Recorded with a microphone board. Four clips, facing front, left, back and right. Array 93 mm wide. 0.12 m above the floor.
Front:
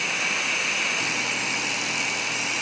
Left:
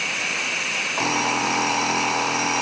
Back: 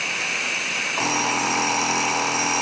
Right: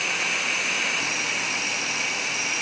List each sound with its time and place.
1.0 s an alarm clock: 135° left